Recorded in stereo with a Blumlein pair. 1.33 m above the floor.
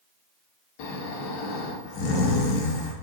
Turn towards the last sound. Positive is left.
turn(degrees=45)